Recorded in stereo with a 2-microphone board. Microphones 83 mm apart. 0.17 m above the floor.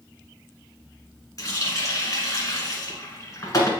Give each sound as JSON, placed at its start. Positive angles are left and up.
{"t": 1.4, "sound": "a running tap", "side_deg": 45, "distance_m": 1.3}